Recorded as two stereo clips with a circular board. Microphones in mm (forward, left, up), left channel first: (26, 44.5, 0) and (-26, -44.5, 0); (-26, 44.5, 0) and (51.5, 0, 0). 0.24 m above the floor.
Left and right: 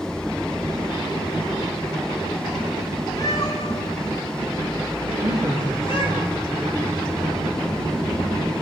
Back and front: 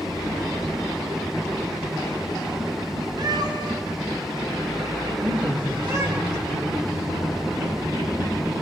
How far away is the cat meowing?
About 5 m.